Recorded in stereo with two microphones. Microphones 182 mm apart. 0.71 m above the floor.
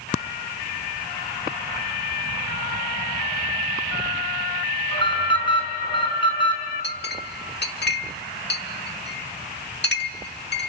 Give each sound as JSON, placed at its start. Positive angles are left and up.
{"t": 4.9, "sound": "an alarm", "side_deg": 30, "distance_m": 5.5}
{"t": 6.8, "sound": "a clink", "side_deg": 70, "distance_m": 1.2}